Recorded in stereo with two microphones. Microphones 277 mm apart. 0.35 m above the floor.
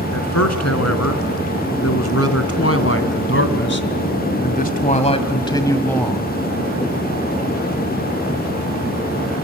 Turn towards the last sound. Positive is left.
turn(degrees=0)  # may be behind; listen again after turning